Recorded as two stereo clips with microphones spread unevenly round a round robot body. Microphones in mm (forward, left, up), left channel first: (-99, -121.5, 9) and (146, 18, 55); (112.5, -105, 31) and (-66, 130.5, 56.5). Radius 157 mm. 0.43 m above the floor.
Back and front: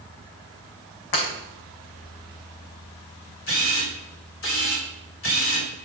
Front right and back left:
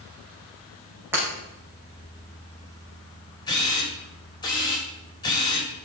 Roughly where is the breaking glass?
Behind right.